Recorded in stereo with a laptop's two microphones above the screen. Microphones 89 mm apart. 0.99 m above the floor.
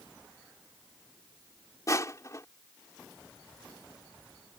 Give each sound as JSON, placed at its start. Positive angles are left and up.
{"t": 1.9, "sound": "crushing", "side_deg": 35}